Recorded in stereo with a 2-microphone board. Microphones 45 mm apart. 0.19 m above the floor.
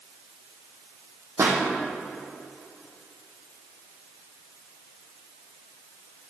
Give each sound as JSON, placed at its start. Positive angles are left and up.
{"t": 1.4, "sound": "a pop", "side_deg": -80, "distance_m": 2.0}